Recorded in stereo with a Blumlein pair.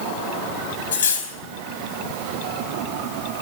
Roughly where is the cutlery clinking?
Ahead left.